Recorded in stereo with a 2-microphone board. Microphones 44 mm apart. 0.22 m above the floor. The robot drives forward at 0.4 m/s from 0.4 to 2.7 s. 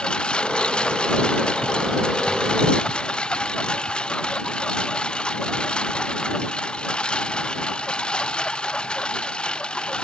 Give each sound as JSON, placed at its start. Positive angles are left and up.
{"t": 0.0, "sound": "a lawn mower", "side_deg": 20}